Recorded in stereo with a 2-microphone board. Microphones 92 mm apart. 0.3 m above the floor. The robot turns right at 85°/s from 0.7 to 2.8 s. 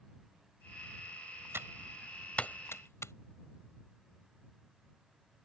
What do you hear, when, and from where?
1.5 s typing on a keyboard: 30° right (ahead or behind); by 3.1 s 30° left (ahead or behind)